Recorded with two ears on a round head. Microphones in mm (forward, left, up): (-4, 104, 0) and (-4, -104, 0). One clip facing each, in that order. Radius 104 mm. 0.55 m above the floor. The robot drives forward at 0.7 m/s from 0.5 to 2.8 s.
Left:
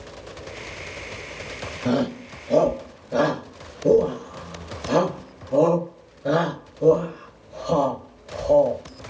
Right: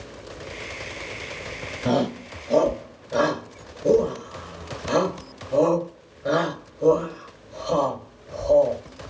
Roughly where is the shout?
Centre.